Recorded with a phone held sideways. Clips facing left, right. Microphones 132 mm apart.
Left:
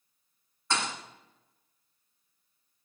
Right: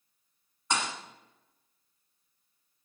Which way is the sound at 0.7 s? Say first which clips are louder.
Even; 20° right (ahead or behind).